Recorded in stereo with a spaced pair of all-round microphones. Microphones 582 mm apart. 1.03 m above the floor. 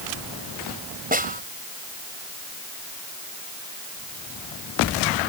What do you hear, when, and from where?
1.1 s a snare drum: 15° right (ahead or behind)